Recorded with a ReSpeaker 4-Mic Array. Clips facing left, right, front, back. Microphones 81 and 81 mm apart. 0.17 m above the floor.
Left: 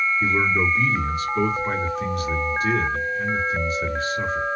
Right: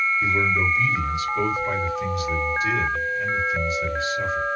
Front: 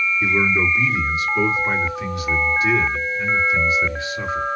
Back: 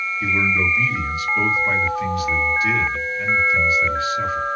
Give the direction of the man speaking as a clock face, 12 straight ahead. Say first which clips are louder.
Left 1 dB, even; 10 o'clock.